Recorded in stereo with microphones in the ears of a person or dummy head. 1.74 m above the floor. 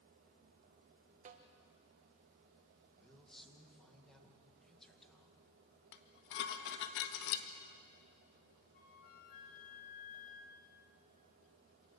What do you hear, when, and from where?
1.2 s a snare drum: 40° right (ahead or behind), 1.5 m
3.0 s a man speaking: 5° left (ahead or behind), 2.5 m
5.9 s dishes clattering: 60° left (ahead or behind), 1.6 m
8.7 s a flute: 45° left (ahead or behind), 5.5 m